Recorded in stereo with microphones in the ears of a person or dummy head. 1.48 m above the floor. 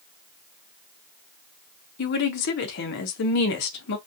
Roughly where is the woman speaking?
Left.